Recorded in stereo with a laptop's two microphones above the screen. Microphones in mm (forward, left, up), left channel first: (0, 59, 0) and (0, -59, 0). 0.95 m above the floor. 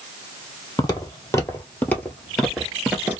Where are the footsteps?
35° left (ahead or behind), 1.3 m; by 3.2 s 15° right (ahead or behind), 0.9 m.